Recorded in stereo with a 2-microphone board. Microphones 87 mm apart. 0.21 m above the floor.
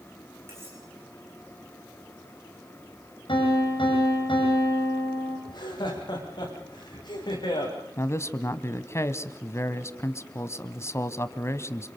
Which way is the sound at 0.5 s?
30° right (ahead or behind).